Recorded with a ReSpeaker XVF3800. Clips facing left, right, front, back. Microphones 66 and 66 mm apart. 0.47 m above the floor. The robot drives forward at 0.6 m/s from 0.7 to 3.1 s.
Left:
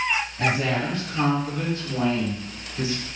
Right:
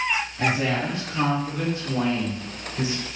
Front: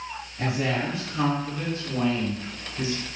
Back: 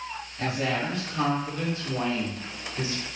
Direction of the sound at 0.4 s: 50° right.